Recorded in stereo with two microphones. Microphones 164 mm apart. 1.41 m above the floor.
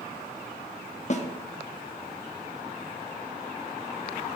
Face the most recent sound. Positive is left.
turn(degrees=45)  # may be behind; listen again after turning